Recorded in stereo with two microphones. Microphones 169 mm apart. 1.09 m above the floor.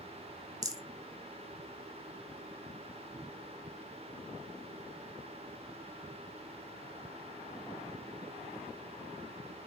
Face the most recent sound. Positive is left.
turn(degrees=-20)  # may be behind; listen again after turning